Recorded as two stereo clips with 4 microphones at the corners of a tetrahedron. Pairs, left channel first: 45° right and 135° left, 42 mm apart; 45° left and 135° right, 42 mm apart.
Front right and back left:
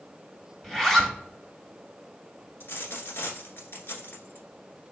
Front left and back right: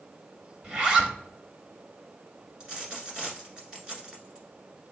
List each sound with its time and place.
0.6 s a zipper: 125° right, 0.9 m
2.6 s a dropped coin: 70° right, 1.3 m